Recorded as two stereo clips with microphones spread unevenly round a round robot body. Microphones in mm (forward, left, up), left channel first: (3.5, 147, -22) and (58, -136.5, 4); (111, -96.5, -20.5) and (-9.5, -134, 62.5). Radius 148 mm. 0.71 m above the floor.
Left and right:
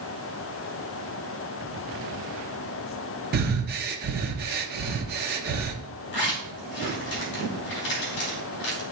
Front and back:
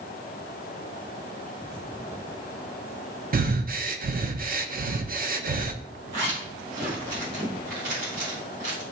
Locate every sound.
3.3 s breathing: 135° right, 0.9 m
6.1 s a zipper: 155° left, 3.5 m